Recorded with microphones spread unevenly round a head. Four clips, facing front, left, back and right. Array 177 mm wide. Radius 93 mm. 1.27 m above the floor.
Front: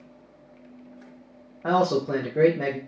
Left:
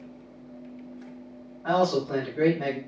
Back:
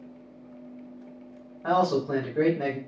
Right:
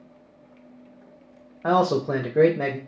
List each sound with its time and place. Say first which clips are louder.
1.6 s a man speaking: right 3 dB, front 1 dB; 70° right, 0.8 m